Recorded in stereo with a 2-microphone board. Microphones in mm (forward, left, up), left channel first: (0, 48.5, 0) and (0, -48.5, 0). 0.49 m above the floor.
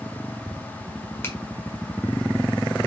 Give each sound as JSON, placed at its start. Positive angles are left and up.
{"t": 1.2, "sound": "a finger snap", "side_deg": 25, "distance_m": 1.4}